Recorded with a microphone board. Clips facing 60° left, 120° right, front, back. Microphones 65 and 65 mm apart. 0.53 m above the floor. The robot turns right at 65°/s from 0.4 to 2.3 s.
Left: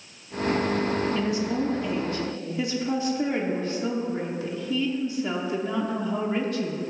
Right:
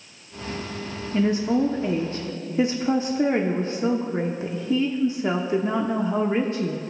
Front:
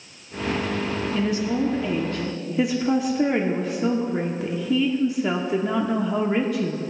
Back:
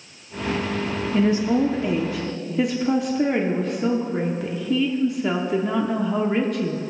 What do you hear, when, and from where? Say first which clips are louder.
1.1 s a woman speaking: right 4 dB, back 6 dB; 165° right, 0.7 m; by 6.8 s 85° right, 0.7 m